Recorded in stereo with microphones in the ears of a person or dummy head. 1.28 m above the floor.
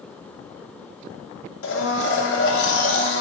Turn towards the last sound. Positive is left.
turn(degrees=75)  # may be behind; listen again after turning